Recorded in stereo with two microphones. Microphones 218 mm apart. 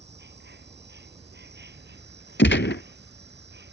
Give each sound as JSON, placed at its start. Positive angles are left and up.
{"t": 0.0, "sound": "an insect", "side_deg": -55}
{"t": 2.4, "sound": "a gunshot", "side_deg": 60}